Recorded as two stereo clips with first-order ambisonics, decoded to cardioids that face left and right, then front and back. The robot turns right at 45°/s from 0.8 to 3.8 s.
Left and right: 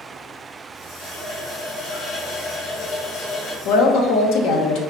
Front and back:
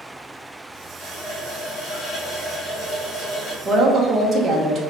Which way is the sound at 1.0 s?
35° right.